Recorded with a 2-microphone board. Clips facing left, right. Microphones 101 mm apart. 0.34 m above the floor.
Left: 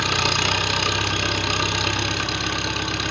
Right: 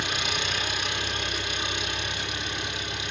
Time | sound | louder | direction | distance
0.0 | an engine running | left 8 dB | 70° left (ahead or behind) | 3 m